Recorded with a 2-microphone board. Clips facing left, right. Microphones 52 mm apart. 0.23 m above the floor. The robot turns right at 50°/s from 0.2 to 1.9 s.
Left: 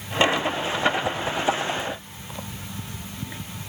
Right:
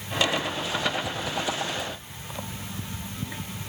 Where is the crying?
I don't hear crying.